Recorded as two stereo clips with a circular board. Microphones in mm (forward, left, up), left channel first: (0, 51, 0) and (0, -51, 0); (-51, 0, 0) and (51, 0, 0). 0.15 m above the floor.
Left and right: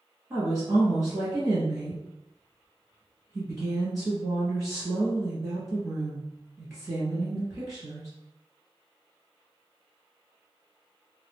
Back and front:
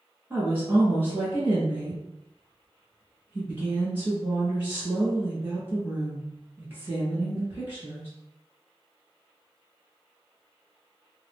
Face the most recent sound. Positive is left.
turn(degrees=-55)